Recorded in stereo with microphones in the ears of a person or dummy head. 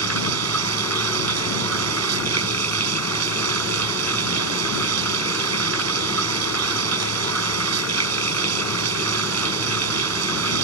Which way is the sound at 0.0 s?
85° right.